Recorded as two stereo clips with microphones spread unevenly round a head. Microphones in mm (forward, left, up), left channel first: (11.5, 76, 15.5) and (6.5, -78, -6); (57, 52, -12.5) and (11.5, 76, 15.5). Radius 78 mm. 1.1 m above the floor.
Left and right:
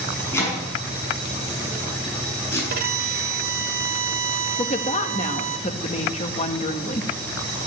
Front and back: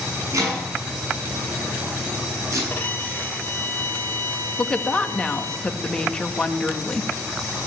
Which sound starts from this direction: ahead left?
A woman speaking, at 4.6 s.